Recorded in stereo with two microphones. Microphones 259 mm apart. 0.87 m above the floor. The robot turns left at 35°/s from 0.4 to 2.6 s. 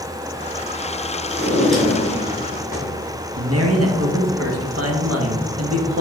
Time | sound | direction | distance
1.3 | a drawer | 165° right | 2 m
3.4 | a man speaking | 65° right (ahead or behind) | 1.1 m